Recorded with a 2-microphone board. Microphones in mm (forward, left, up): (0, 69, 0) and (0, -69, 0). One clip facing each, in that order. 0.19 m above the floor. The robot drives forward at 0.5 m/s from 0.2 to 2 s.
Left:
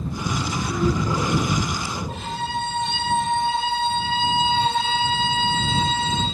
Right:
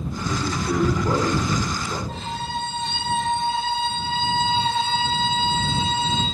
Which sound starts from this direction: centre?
A violin, at 2.1 s.